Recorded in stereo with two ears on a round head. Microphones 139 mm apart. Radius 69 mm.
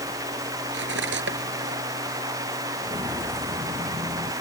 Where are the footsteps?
15° right (ahead or behind); by 4.3 s 20° right (ahead or behind).